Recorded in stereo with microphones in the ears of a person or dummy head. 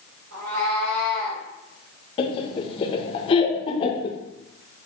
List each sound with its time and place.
0.3 s a cat meowing: 75° right (ahead or behind), 1.7 m
2.2 s laughter: 30° left (ahead or behind), 0.7 m